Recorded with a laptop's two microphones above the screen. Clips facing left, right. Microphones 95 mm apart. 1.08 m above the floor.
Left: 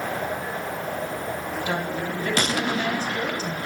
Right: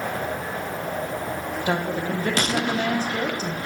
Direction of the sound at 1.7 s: 40° right (ahead or behind).